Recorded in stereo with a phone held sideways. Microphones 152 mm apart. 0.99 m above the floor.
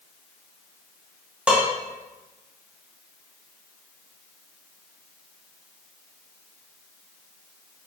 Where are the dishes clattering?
5° right (ahead or behind), 0.9 m.